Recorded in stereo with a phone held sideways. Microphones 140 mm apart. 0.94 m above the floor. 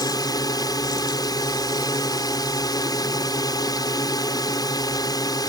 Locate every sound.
0.0 s a drone: 25° left (ahead or behind)